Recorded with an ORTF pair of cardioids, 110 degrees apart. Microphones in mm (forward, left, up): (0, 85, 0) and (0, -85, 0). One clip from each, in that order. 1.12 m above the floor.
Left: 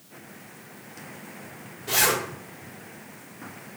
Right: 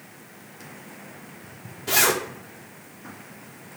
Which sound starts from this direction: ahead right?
A zipper, at 1.9 s.